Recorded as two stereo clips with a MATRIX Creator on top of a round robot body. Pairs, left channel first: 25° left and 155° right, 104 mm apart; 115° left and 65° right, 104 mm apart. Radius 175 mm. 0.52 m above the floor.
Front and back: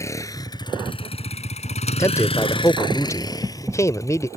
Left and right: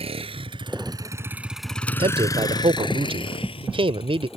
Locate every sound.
0.0 s a vehicle: 40° right; by 4.4 s 85° left
2.0 s a man speaking: 35° right